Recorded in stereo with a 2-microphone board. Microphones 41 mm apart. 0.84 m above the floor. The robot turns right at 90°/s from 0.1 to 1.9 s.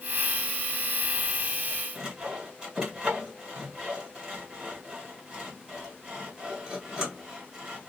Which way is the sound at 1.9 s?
25° right (ahead or behind).